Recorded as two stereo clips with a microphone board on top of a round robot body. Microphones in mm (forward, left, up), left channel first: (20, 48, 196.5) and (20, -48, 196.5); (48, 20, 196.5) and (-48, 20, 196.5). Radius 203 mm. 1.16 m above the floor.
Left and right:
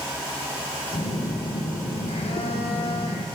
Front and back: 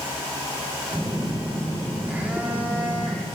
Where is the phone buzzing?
105° left, 0.5 m.